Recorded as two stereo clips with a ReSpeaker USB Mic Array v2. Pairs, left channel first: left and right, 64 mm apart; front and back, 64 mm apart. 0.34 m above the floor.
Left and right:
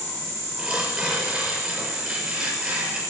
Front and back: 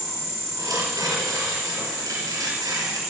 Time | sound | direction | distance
0.6 | tearing paper | 165° right | 6.5 m